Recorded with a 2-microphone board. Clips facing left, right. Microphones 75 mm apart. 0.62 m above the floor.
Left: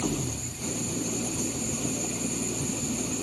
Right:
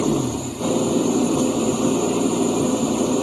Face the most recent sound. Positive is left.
turn(degrees=-75)  # may be behind; listen again after turning